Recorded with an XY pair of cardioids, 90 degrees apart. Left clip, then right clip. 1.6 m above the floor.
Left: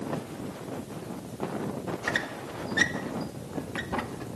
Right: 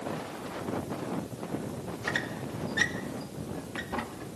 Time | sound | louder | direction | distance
2.0 | a squeak | left 1 dB | 25° left | 2 m